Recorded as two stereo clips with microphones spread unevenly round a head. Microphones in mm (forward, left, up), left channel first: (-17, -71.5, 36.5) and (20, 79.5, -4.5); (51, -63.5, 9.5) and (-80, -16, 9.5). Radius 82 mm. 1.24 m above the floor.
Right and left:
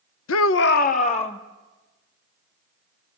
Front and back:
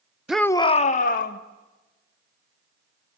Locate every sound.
0.3 s a shout: 115° right, 0.7 m; by 1.4 s 45° right, 1.7 m